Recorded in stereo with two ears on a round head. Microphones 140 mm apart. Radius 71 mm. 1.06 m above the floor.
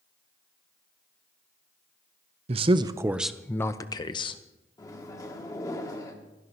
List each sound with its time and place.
2.5 s a man speaking: 40° right (ahead or behind), 0.6 m; by 4.4 s 35° left (ahead or behind), 0.9 m
4.8 s a microwave: 20° left (ahead or behind), 1.5 m